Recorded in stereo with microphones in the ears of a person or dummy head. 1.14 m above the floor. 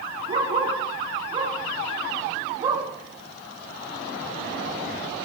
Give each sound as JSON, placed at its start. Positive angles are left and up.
{"t": 0.3, "sound": "a dog barking", "side_deg": -25, "distance_m": 5.5}